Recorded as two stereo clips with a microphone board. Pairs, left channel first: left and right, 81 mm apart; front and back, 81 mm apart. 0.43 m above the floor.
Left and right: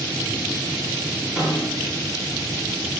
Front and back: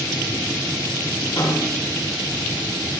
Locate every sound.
1.4 s a snare drum: 10° right, 8.5 m